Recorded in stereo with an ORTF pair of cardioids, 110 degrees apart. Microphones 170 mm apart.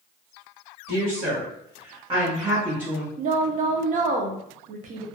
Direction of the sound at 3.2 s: 50° right.